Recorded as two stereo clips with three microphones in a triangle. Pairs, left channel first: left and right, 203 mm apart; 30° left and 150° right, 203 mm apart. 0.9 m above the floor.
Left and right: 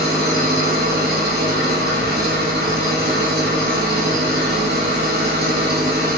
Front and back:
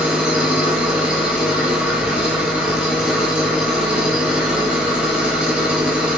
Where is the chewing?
No chewing in this recording.